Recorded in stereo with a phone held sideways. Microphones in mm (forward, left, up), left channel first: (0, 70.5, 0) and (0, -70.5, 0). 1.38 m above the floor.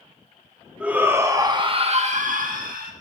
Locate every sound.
0.8 s a shout: 10° right (ahead or behind), 2.5 m; by 2.9 s 85° right, 2.5 m